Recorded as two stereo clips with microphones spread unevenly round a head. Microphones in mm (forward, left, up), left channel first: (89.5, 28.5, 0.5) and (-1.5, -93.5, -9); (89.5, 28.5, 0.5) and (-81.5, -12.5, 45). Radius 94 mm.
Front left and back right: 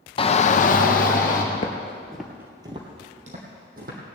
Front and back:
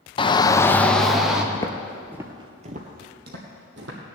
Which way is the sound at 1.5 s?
85° left.